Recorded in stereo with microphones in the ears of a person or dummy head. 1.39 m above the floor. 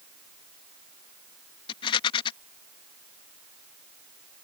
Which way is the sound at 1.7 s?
25° left (ahead or behind).